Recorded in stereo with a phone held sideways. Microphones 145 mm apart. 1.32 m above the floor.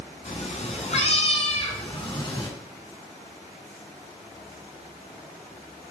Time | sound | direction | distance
0.2 | a cat meowing | 55° left (ahead or behind) | 2.5 m